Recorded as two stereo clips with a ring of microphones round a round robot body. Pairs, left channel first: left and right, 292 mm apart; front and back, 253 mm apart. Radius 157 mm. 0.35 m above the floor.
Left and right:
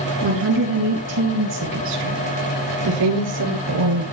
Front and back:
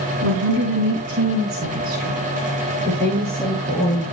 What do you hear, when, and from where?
0.2 s a woman speaking: 140° right, 5 m; by 4.0 s 105° right, 7.5 m